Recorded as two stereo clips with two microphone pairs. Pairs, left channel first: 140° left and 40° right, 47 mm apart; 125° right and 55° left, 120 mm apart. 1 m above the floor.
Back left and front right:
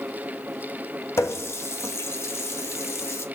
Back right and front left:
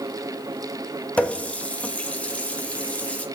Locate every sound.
1.2 s a running tap: 160° left, 0.8 m